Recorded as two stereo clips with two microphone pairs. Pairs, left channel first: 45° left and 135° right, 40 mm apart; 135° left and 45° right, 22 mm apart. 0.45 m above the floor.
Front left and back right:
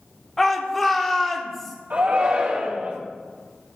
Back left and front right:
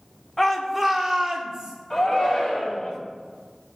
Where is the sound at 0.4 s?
110° left, 0.9 m; by 1.8 s 35° right, 1.0 m.